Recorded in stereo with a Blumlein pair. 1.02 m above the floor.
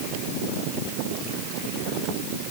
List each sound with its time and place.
Only background noise.